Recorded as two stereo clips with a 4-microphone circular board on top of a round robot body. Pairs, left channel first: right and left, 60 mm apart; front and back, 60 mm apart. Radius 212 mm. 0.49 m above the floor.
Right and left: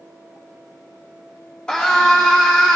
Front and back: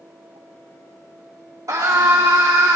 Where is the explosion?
I don't hear an explosion.